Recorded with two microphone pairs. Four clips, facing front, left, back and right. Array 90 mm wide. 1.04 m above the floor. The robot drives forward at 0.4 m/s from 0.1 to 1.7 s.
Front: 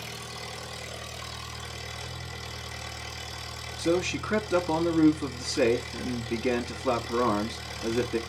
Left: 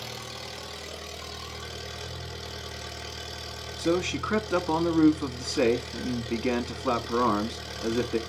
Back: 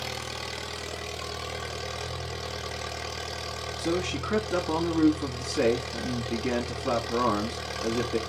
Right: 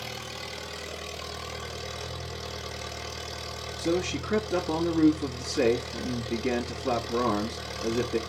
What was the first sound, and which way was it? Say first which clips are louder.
An engine running: right 1 dB, back 4 dB; straight behind.